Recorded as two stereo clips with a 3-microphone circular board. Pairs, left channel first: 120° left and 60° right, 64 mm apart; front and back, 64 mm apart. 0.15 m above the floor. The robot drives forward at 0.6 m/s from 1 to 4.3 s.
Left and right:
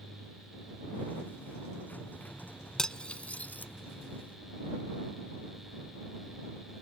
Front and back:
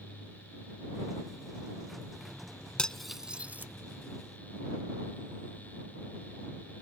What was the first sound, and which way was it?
Cutlery clinking, 55° left.